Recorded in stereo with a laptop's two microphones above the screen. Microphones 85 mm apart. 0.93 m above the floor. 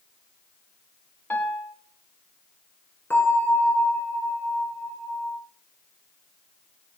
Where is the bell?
25° left (ahead or behind), 6 m.